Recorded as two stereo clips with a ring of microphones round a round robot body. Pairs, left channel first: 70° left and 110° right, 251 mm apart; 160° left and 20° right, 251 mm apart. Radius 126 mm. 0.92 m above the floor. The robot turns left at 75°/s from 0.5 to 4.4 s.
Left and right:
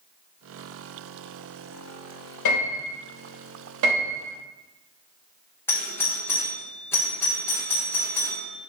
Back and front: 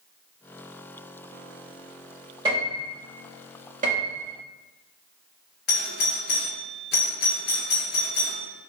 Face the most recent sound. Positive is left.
turn(degrees=145)